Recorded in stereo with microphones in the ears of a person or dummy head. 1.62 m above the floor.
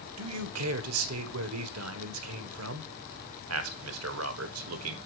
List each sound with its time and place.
0.2 s a man speaking: 80° right, 1.4 m